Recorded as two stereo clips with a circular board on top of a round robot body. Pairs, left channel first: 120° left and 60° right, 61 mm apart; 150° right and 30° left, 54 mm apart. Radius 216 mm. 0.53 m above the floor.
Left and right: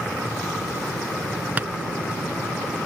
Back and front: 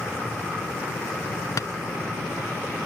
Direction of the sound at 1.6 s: 125° right.